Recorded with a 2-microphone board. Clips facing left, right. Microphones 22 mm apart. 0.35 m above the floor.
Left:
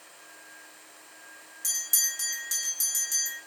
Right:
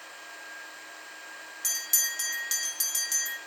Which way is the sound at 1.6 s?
35° right (ahead or behind).